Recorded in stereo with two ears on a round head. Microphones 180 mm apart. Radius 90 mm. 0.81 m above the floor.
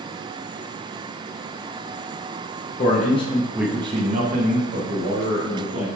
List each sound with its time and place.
2.8 s a man speaking: 45° left (ahead or behind), 0.7 m; by 5.9 s 65° right (ahead or behind), 1.7 m